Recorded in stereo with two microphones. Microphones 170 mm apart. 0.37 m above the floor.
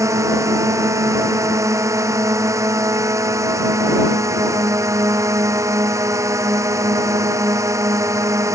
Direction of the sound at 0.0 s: 15° right (ahead or behind).